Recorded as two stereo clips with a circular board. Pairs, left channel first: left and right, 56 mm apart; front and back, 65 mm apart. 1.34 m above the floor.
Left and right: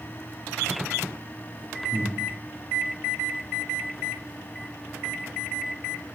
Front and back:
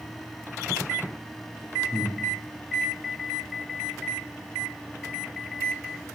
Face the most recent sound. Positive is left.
turn(degrees=-40)